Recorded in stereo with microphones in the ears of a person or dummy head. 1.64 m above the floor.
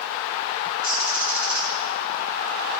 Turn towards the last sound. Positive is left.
turn(degrees=-20)  # may be behind; listen again after turning